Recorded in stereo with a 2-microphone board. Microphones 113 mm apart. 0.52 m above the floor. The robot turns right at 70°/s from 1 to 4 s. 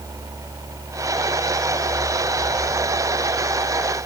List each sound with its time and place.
Only background noise.